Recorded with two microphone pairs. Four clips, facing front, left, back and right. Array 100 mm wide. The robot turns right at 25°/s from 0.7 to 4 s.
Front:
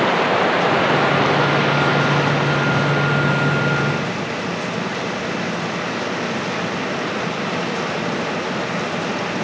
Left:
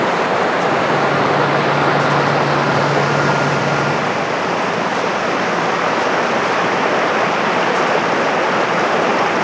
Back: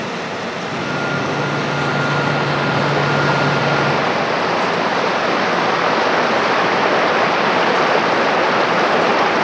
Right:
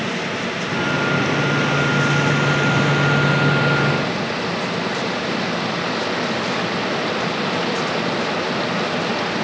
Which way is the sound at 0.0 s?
60° left.